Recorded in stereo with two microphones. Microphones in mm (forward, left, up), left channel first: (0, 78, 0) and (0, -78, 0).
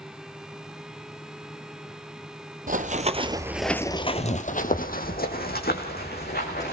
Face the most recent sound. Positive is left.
turn(degrees=75)  # may be behind; listen again after turning